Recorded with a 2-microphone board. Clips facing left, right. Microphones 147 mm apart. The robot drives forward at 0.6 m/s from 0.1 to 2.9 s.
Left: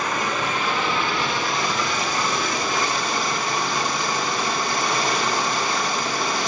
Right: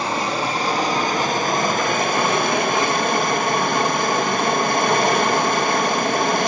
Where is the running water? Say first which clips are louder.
Right 3 dB; 30° right (ahead or behind), 1.8 m; by 6.5 s 55° right (ahead or behind), 1.1 m.